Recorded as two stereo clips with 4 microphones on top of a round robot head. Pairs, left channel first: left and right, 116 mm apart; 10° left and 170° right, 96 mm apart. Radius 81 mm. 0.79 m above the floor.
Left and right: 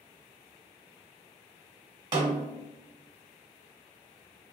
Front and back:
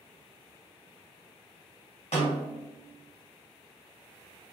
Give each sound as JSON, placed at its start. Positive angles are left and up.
{"t": 2.1, "sound": "a snare drum", "azimuth_deg": -40, "distance_m": 1.3}